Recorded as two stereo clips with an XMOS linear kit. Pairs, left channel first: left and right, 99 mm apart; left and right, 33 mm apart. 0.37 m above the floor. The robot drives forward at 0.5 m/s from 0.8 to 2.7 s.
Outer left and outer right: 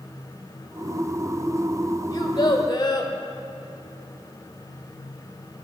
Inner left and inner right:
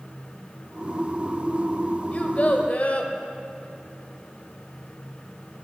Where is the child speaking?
45° left (ahead or behind), 1.0 m; by 3.1 s 50° left (ahead or behind), 1.0 m.